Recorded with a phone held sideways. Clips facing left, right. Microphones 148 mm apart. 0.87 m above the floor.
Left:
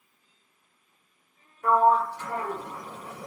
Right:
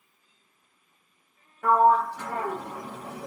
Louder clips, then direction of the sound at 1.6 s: Right 1 dB; 80° right.